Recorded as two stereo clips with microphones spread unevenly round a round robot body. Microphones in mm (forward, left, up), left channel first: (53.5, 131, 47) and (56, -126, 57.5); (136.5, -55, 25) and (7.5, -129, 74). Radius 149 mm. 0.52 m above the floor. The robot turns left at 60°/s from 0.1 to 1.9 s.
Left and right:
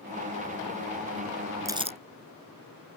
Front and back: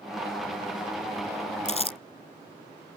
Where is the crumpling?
10° right; by 2.0 s 25° right.